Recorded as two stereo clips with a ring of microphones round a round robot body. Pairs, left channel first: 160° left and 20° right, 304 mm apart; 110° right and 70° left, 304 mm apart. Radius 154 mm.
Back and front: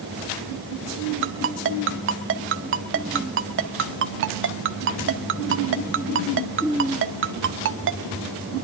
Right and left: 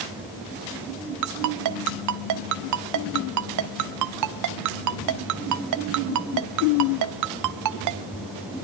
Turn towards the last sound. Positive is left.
turn(degrees=30)